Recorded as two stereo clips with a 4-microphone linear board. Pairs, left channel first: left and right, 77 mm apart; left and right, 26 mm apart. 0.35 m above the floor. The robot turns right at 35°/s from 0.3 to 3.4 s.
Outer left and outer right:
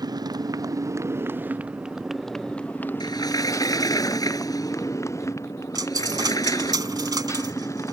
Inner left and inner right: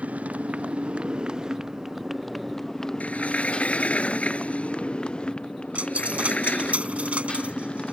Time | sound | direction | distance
0.0 | a motorcycle | 65° right | ?
3.0 | a sliding door | 70° left (ahead or behind) | ?
5.8 | a dropped coin | 65° right (ahead or behind) | ?